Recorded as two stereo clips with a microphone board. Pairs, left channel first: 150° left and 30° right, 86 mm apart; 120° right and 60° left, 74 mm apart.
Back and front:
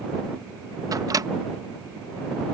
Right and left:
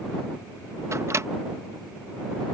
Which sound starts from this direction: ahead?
A microwave, at 0.9 s.